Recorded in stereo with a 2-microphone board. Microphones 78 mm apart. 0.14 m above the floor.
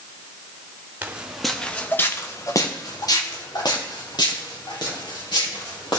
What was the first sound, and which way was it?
Footsteps, 20° right (ahead or behind).